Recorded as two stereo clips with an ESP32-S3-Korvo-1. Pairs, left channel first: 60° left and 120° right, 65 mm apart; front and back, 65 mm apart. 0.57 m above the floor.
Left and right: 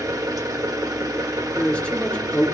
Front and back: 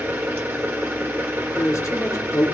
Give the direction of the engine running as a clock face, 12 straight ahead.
4 o'clock.